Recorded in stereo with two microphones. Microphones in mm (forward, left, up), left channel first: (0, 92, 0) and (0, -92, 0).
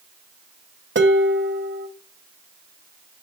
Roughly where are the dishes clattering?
Right.